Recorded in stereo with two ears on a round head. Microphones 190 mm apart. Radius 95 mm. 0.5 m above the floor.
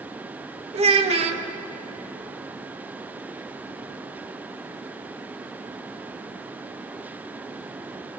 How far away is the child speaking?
About 0.8 m.